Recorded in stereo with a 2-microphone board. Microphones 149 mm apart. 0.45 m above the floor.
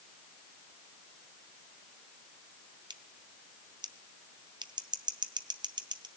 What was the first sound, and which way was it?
Scissors, 30° right (ahead or behind).